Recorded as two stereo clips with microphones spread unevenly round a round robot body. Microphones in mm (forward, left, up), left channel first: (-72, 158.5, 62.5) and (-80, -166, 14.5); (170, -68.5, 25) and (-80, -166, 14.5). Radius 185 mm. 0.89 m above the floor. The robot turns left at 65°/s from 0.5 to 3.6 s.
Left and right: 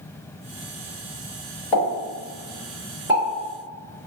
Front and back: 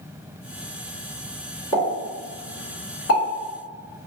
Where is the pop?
80° left, 1.5 m; by 3.2 s 20° right, 1.5 m.